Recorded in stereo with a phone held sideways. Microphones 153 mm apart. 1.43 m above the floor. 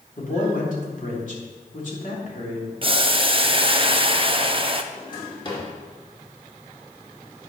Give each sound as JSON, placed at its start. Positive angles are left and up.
{"t": 0.2, "sound": "a man speaking", "side_deg": 60, "distance_m": 3.0}
{"t": 2.8, "sound": "boiling", "side_deg": -35, "distance_m": 0.6}
{"t": 4.9, "sound": "a drawer", "side_deg": 30, "distance_m": 2.5}